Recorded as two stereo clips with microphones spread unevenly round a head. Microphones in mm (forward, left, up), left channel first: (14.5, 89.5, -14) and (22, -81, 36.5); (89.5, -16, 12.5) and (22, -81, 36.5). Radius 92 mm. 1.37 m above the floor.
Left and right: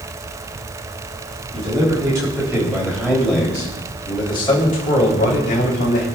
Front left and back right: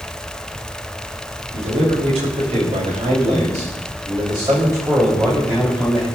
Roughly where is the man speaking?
Behind right.